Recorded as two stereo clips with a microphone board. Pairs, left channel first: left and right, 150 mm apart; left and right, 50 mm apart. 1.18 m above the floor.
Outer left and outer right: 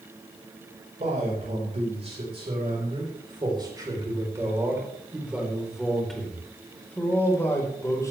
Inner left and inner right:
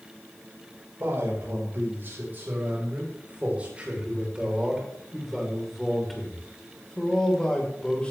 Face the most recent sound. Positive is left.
turn(degrees=20)  # may be behind; listen again after turning